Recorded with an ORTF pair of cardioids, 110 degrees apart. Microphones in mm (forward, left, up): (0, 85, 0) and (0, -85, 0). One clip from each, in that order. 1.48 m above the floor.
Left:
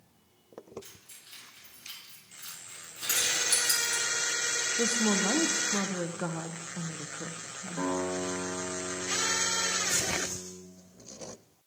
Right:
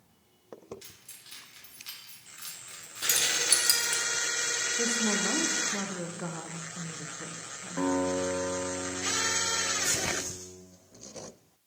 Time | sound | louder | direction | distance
0.8 | keys jangling | right 1 dB | 65° right | 2.5 m
3.0 | keys jangling | right 1 dB | 35° right | 1.3 m
4.8 | a woman speaking | left 2 dB | 15° left | 0.6 m
7.8 | a guitar | right 3 dB | 30° right | 1.7 m